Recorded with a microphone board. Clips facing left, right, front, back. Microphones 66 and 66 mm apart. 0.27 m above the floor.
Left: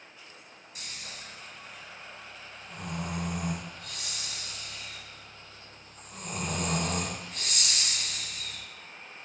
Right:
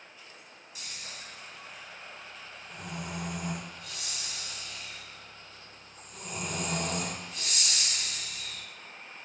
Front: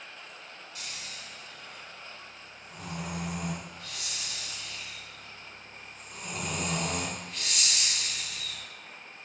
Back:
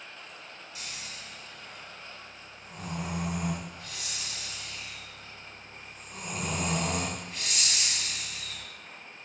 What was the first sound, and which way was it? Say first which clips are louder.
Snoring: left 1 dB, even; 115° left.